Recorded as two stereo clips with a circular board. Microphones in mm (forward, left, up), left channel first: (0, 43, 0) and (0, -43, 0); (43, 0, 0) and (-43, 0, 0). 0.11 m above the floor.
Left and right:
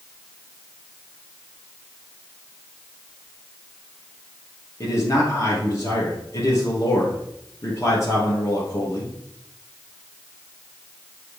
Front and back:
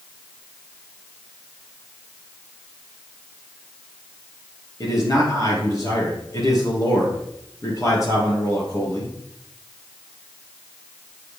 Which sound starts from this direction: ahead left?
A man speaking, at 4.8 s.